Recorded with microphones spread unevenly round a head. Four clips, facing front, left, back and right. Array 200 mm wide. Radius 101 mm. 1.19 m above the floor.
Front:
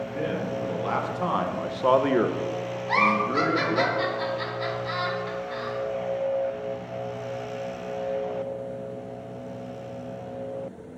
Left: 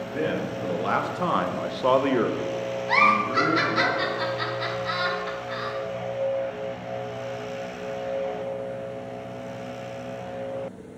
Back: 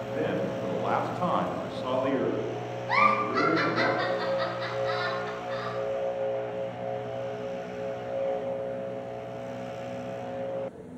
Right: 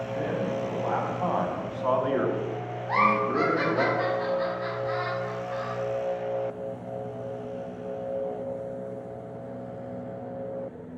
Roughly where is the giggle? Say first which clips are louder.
Left 2 dB, front 1 dB; left.